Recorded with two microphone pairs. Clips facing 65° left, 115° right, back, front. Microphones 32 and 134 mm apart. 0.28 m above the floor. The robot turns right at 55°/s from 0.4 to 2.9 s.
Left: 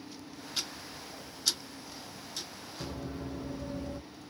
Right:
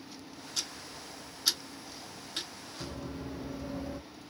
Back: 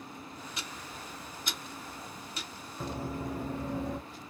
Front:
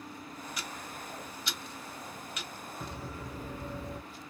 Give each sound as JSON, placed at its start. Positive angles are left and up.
{"t": 0.6, "sound": "ticking", "azimuth_deg": 120, "distance_m": 0.8}
{"t": 2.8, "sound": "running footsteps", "azimuth_deg": 130, "distance_m": 1.0}